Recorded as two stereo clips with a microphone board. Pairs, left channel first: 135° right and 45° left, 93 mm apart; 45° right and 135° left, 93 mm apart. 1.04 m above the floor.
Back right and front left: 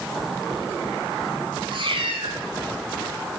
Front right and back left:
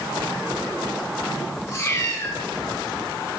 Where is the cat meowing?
15° left, 4 m.